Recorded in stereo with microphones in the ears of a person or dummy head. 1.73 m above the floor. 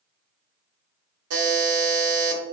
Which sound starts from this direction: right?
A buzzer, at 1.3 s.